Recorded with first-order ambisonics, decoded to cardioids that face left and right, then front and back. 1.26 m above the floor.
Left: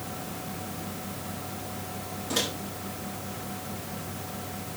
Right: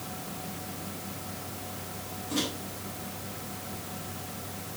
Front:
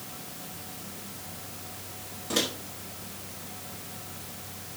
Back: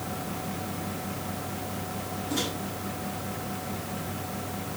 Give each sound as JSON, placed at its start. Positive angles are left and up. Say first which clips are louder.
{"t": 2.3, "sound": "a microwave", "louder": "left 3 dB, front 3 dB", "azimuth_deg": 30, "distance_m": 4.5}